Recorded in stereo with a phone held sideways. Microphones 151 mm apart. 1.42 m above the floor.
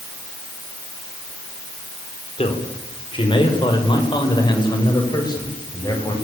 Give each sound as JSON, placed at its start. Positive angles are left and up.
{"t": 2.4, "sound": "a man speaking", "side_deg": 35, "distance_m": 5.5}